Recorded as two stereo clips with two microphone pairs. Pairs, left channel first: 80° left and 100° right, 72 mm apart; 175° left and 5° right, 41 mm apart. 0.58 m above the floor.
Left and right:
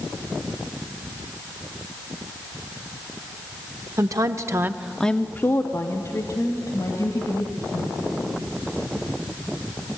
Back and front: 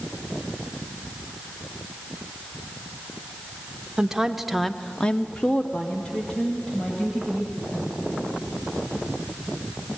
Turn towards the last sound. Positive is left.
turn(degrees=115)